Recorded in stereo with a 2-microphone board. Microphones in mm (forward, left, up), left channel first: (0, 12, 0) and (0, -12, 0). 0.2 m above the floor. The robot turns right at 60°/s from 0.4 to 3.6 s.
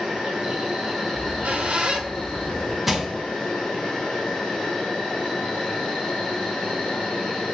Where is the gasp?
No gasp in this recording.